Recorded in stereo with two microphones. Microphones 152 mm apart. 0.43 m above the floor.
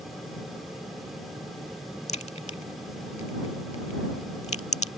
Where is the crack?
45° left (ahead or behind).